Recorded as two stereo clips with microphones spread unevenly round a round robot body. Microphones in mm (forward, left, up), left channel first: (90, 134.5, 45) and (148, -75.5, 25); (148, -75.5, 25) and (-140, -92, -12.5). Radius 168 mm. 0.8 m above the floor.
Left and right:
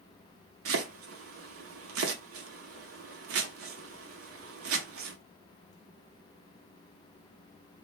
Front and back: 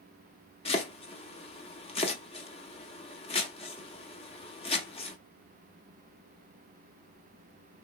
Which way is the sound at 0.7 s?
70° right.